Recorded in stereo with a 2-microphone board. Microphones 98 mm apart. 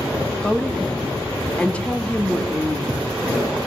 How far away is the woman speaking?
About 2 m.